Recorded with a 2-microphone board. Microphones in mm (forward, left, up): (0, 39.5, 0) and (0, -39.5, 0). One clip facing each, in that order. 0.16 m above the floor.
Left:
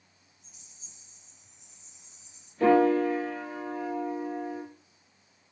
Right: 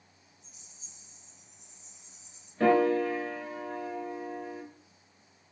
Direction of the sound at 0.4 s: 20° right (ahead or behind).